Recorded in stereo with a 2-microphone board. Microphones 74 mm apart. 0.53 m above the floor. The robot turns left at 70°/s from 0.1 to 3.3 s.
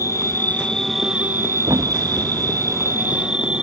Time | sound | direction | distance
0.0 | an insect | 55° left | ?
1.6 | a thud | 55° right (ahead or behind) | ?